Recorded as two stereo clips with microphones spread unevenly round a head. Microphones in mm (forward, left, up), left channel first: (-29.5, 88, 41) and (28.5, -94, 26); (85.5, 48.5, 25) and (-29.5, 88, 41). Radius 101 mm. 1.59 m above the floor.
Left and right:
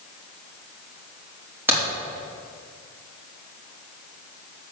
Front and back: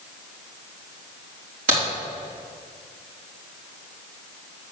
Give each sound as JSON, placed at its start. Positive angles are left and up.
{"t": 1.7, "sound": "a crack", "azimuth_deg": -150, "distance_m": 3.5}